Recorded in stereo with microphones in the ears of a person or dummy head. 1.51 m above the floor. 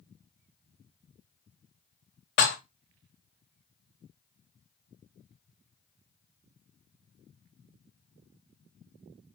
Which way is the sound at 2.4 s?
45° left (ahead or behind).